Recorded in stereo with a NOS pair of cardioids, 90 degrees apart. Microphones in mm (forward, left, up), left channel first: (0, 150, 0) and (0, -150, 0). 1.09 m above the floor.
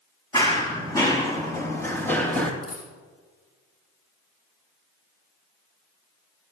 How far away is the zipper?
No zipper in this recording.